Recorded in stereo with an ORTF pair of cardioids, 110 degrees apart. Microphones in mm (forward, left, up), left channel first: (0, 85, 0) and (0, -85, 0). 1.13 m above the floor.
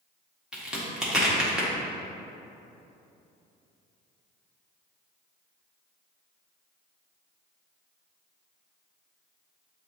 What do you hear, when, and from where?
0.5 s a crack: 5° right, 1.2 m